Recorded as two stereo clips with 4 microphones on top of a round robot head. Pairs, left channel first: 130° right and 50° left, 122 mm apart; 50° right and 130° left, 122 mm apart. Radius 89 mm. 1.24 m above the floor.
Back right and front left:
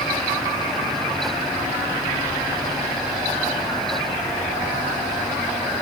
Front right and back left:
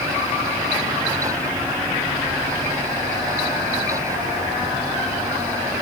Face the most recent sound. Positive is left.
No sound to turn to.